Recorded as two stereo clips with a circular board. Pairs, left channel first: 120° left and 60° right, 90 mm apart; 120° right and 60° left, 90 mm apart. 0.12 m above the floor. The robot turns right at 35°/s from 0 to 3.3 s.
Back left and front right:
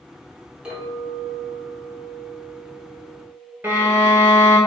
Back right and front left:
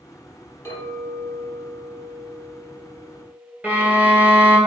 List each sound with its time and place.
0.7 s a clink: 130° right, 1.1 m; by 3.5 s 35° right, 1.1 m
3.6 s a violin: straight ahead, 0.9 m